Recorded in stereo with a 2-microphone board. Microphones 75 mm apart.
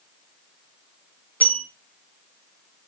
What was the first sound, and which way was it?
A bell, 25° left (ahead or behind).